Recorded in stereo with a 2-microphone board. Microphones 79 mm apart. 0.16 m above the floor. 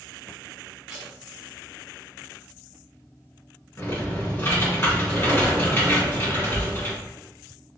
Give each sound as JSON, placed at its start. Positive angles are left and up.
{"t": 0.9, "sound": "tape being pulled", "side_deg": -15, "distance_m": 1.5}
{"t": 3.8, "sound": "typing on a keyboard", "side_deg": 35, "distance_m": 1.8}